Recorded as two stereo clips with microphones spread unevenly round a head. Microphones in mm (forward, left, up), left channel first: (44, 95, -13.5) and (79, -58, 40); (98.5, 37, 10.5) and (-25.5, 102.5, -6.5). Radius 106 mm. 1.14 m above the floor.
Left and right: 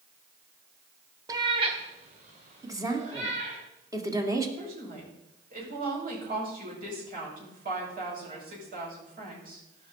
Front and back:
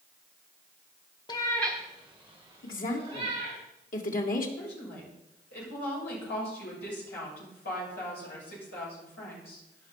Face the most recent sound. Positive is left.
turn(degrees=-45)